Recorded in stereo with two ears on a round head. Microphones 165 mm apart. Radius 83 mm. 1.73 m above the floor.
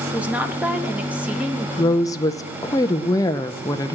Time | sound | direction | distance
0.1 | a woman speaking | 5° right (ahead or behind) | 1.5 m
1.8 | a woman speaking | 20° left (ahead or behind) | 0.5 m